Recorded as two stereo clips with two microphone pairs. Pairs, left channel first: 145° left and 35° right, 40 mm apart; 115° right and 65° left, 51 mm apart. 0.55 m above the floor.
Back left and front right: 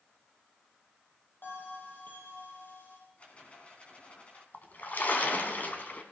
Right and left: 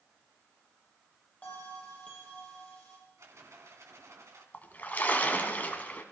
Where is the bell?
175° left, 6 m.